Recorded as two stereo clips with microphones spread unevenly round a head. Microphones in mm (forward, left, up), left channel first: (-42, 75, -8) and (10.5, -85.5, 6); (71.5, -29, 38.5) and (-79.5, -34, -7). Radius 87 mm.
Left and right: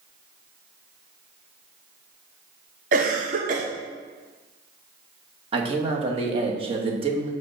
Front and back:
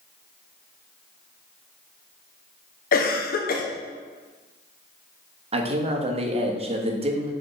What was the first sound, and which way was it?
A cough, 30° right.